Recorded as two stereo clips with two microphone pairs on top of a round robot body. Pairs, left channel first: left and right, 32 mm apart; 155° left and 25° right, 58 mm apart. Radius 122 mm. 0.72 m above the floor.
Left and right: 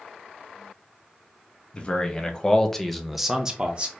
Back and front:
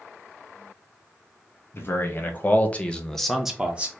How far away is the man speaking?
About 1.3 m.